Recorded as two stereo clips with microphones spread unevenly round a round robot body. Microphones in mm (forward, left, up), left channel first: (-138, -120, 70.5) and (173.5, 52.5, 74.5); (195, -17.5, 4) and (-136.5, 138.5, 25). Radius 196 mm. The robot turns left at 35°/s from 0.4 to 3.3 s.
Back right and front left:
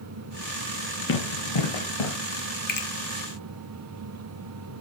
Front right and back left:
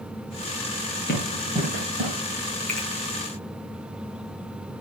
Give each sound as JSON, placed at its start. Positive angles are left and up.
{"t": 1.1, "sound": "running footsteps", "azimuth_deg": -95, "distance_m": 1.9}
{"t": 2.7, "sound": "a finger snap", "azimuth_deg": -105, "distance_m": 1.5}